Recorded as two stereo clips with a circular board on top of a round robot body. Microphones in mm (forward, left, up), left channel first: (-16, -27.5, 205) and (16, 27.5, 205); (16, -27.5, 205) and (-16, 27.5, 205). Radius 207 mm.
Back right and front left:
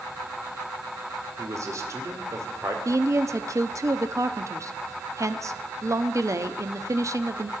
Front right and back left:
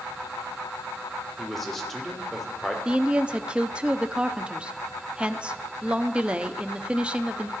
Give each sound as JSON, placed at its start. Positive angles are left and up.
{"t": 1.4, "sound": "a man speaking", "azimuth_deg": 25, "distance_m": 2.0}
{"t": 2.9, "sound": "a woman speaking", "azimuth_deg": 50, "distance_m": 1.0}